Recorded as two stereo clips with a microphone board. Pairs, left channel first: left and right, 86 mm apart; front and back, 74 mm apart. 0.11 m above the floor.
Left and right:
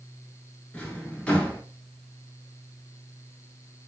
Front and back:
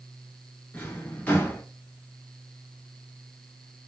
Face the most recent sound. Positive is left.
turn(degrees=35)